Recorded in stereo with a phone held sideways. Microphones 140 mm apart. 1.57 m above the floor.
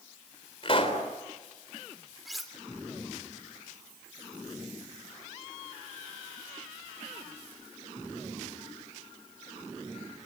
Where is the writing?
I don't hear writing.